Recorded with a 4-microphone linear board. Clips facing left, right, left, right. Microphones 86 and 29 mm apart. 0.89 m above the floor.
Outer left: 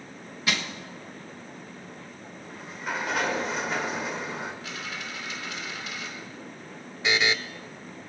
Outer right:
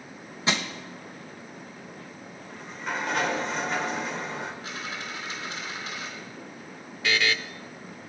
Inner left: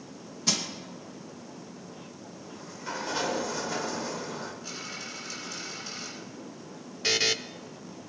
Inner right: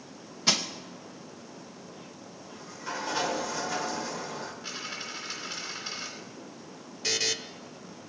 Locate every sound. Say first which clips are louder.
0.5 s crushing: outer right 2 dB, inner right 3 dB; 25° right (ahead or behind), 1.1 m
2.4 s a sliding door: even, even; 5° left (ahead or behind), 1.5 m
4.6 s a dropped coin: outer right 1 dB, inner right 1 dB; 30° right (ahead or behind), 3.5 m
7.0 s a buzzer: outer left 1 dB, inner left 3 dB; 20° left (ahead or behind), 0.6 m